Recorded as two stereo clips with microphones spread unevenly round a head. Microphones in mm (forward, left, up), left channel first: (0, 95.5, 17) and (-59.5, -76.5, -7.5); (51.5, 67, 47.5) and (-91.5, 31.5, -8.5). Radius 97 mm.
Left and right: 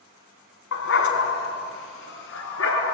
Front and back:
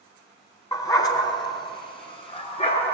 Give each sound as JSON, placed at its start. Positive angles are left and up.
{"t": 0.7, "sound": "a dog barking", "azimuth_deg": 75, "distance_m": 3.5}